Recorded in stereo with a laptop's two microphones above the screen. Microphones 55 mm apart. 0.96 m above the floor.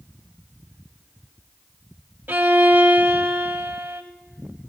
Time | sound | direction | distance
2.3 | a violin | 35° right (ahead or behind) | 0.9 m